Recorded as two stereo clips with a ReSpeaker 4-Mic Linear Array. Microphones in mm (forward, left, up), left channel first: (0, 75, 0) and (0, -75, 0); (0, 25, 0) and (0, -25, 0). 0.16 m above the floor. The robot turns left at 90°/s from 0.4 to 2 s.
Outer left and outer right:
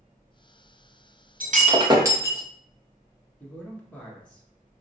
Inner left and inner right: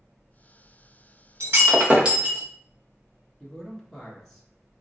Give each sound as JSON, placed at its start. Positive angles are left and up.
{"t": 1.4, "sound": "breaking glass", "azimuth_deg": -105, "distance_m": 1.5}
{"t": 3.4, "sound": "a man speaking", "side_deg": 10, "distance_m": 1.7}